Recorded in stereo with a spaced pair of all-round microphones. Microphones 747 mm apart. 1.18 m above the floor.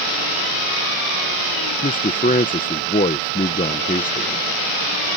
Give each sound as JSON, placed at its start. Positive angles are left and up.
{"t": 1.8, "sound": "a man speaking", "side_deg": 10}